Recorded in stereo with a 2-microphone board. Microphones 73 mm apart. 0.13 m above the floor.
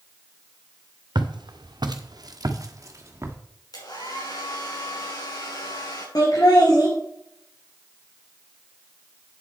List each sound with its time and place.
1.1 s footsteps: 85° right, 1.5 m; by 3.4 s 35° right (ahead or behind), 1.9 m
3.7 s a hair dryer: 60° left (ahead or behind), 5 m
6.2 s laughter: 60° left (ahead or behind), 3.5 m